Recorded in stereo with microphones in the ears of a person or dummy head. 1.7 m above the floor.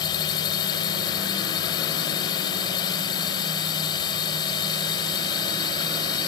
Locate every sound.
0.0 s a drone: 20° left (ahead or behind)